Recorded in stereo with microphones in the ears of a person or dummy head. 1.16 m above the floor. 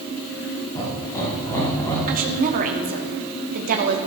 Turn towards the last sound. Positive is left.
turn(degrees=-40)  # may be behind; listen again after turning